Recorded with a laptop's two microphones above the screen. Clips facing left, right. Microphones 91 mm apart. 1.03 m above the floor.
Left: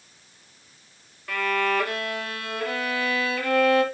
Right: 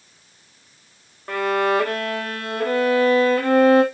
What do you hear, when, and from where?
1.3 s a violin: 40° right (ahead or behind), 1.4 m